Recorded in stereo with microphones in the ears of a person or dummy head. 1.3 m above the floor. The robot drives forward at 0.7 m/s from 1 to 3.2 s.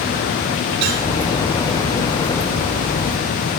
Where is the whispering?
No whispering in this recording.